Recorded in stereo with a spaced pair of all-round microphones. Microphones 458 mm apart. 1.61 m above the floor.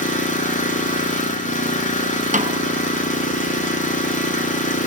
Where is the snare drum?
15° right (ahead or behind), 1.1 m.